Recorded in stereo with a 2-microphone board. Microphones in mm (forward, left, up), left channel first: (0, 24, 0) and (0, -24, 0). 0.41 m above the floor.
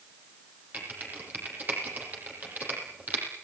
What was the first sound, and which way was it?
Typing on a keyboard, 35° right (ahead or behind).